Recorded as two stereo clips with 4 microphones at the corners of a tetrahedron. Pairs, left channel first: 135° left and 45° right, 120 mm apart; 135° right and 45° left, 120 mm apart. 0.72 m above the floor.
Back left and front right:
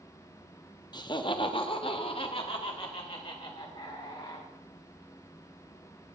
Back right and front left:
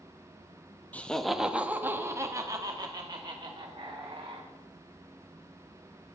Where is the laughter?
155° left, 0.8 m; by 4.5 s 90° left, 2 m.